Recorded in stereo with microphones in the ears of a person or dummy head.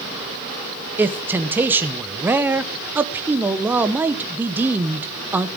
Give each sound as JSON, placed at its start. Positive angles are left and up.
{"t": 1.0, "sound": "a man speaking", "side_deg": -10, "distance_m": 0.9}